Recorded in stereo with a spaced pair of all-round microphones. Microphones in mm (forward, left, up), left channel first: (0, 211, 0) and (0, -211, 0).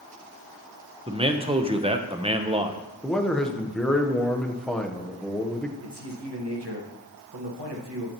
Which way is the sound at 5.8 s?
85° right.